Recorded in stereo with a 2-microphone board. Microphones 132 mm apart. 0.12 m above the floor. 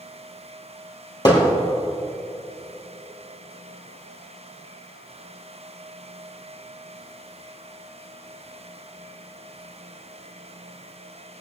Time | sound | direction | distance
1.2 | hammering | 35° left (ahead or behind) | 2.5 m